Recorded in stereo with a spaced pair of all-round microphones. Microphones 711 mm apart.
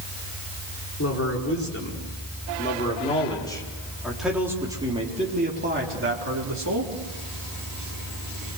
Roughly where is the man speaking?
Left.